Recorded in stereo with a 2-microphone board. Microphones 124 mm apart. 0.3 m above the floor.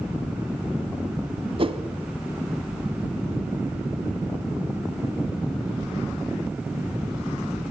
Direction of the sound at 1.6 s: 50° right (ahead or behind).